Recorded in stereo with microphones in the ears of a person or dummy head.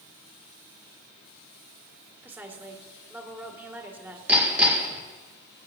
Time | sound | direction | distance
2.2 | a woman speaking | centre (ahead or behind) | 1.9 m
4.3 | hammering | centre (ahead or behind) | 1.6 m